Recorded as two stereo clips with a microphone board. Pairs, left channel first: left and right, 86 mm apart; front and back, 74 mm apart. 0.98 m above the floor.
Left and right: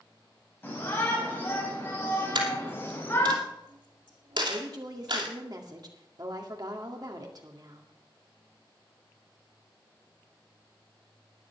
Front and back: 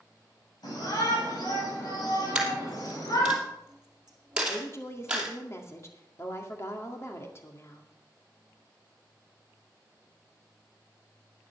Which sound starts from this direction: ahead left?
A shout, at 0.6 s.